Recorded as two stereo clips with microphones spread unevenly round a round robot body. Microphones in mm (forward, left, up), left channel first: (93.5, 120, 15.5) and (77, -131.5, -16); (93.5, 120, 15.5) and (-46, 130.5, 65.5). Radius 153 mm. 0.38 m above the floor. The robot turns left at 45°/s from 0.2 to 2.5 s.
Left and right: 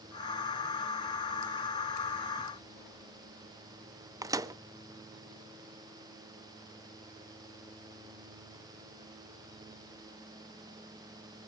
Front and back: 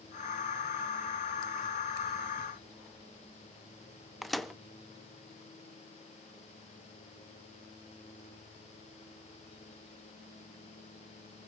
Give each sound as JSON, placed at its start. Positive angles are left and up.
{"t": 4.2, "sound": "a microwave", "azimuth_deg": -50, "distance_m": 0.6}